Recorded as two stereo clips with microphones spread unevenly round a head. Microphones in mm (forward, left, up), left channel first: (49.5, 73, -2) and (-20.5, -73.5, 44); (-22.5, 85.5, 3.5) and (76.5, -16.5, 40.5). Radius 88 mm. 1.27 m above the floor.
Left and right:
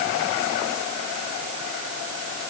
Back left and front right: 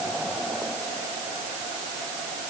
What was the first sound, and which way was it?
Only background noise.